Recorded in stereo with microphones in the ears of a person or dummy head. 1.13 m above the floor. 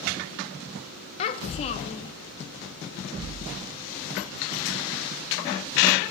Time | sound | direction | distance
1.2 | a child speaking | 40° left (ahead or behind) | 0.6 m